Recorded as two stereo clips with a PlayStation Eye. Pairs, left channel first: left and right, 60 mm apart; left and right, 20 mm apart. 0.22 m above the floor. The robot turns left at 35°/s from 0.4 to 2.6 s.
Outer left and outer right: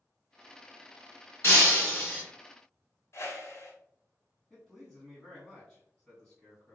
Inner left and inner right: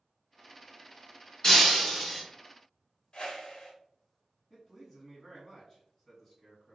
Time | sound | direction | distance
1.4 | breaking glass | 40° left (ahead or behind) | 1.8 m
3.1 | a whoosh | 50° left (ahead or behind) | 0.9 m
4.5 | a man speaking | 5° left (ahead or behind) | 1.8 m